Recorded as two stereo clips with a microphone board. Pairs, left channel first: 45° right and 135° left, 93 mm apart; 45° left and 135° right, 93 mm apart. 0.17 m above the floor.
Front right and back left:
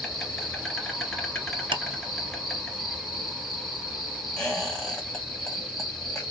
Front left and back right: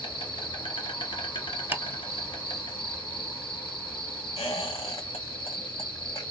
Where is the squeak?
40° left, 1.8 m.